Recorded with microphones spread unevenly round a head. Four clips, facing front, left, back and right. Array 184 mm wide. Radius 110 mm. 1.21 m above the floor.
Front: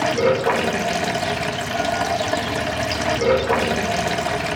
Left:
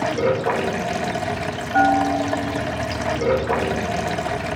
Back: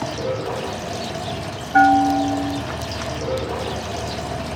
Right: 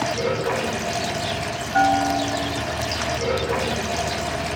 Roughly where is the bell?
Behind.